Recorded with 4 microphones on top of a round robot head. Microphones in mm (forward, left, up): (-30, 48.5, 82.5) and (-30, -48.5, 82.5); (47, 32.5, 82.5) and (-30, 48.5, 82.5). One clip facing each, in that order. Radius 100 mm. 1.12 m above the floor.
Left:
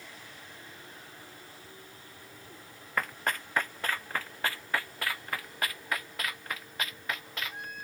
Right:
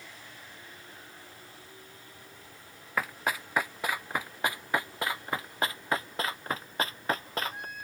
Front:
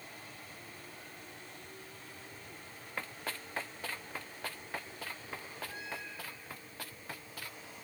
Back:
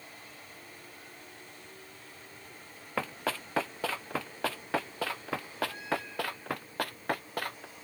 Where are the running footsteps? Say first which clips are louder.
Right 1 dB, back 9 dB; 175° right; by 7.7 s 145° right.